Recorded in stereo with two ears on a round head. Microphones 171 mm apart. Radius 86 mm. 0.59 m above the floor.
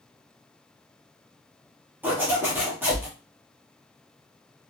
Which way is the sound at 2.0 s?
10° right (ahead or behind).